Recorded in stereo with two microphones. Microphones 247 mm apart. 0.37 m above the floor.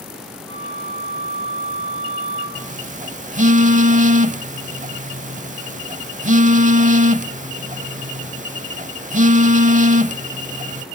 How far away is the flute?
About 9.5 m.